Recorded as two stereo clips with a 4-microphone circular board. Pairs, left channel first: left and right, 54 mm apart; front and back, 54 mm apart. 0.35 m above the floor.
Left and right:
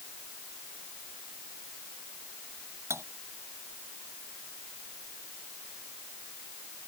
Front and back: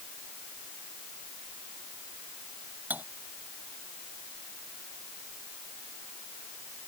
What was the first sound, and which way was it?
Cutlery clinking, 125° right.